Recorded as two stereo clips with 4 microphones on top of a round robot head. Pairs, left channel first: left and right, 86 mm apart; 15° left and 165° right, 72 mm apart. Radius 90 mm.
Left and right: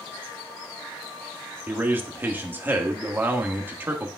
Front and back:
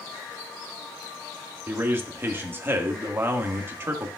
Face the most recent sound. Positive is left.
turn(degrees=-140)